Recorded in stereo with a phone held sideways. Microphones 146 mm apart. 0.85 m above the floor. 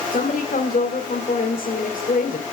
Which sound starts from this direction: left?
A woman speaking, at 0.1 s.